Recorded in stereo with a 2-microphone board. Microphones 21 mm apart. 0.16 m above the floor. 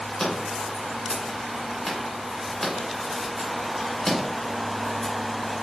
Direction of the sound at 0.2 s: 30° left (ahead or behind).